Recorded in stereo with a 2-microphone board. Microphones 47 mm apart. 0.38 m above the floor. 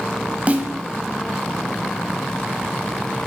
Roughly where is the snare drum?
Right.